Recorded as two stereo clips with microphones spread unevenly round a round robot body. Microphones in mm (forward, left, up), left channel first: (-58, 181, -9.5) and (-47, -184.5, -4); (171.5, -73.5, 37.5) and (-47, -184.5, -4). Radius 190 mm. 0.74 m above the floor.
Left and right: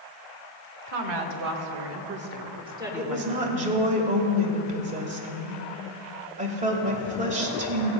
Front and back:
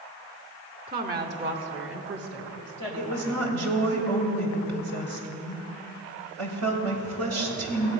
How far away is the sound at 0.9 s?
About 2 m.